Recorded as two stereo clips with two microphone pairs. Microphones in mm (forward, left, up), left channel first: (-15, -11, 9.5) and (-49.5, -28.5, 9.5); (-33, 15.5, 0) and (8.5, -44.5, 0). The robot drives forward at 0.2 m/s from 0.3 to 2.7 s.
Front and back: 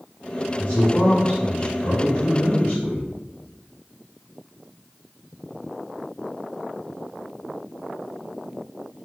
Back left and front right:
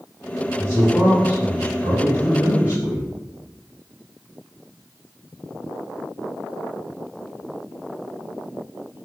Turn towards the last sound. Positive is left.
turn(degrees=85)